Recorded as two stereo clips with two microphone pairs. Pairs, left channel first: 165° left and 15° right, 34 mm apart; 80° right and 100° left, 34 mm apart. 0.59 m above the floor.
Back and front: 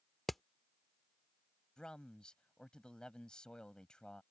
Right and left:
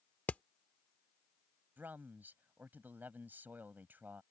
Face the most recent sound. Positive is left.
turn(degrees=100)